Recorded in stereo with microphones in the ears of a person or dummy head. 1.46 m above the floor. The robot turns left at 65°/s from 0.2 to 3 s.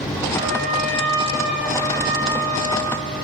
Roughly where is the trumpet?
Ahead right.